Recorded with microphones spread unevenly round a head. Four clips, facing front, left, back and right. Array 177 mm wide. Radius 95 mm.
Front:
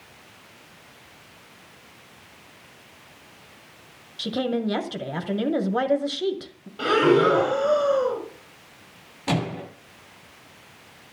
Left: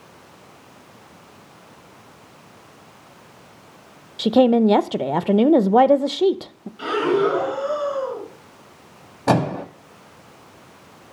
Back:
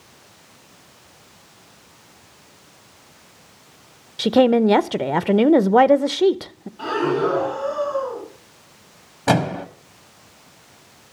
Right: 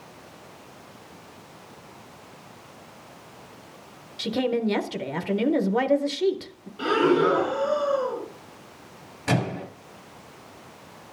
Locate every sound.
4.2 s a woman speaking: 130° left, 0.7 m
6.8 s breathing: 5° left, 3.5 m
9.3 s a microwave: 125° left, 1.4 m